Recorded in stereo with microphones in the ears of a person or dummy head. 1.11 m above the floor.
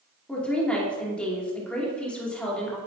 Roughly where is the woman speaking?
Centre.